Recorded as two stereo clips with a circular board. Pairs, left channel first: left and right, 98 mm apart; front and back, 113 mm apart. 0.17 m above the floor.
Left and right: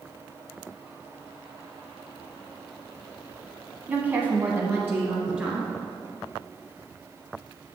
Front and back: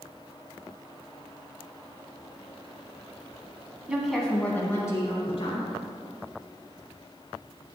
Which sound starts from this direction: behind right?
A woman speaking, at 3.9 s.